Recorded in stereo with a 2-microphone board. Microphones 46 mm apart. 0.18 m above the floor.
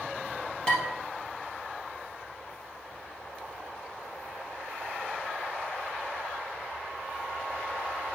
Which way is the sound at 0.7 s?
20° left (ahead or behind).